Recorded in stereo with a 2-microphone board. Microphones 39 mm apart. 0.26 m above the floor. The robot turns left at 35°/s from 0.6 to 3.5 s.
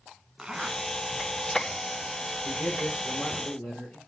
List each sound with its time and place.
0.4 s a zipper: 10° right (ahead or behind), 1.2 m; by 0.8 s 5° right (ahead or behind), 1.2 m
2.4 s a man speaking: 70° left, 5.5 m; by 4.0 s 30° left, 5.5 m